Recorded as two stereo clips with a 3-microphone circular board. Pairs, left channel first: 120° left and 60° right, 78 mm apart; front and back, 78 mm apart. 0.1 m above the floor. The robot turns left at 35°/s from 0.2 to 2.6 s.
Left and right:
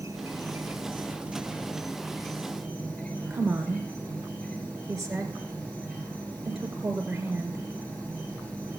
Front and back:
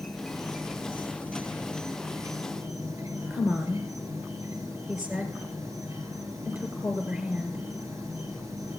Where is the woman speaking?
135° right, 1.7 m.